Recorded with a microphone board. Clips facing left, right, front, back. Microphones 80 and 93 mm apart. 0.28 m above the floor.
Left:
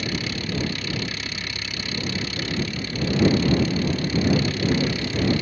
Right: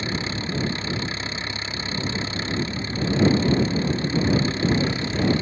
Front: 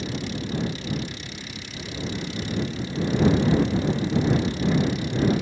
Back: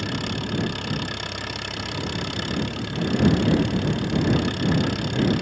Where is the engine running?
150° right.